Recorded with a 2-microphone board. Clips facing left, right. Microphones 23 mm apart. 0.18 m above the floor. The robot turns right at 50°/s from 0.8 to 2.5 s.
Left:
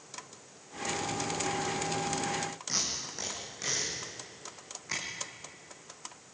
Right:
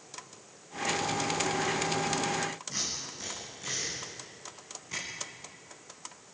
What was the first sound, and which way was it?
Tape being pulled, 70° left (ahead or behind).